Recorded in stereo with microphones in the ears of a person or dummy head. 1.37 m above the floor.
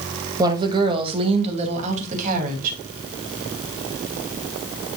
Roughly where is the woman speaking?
Right.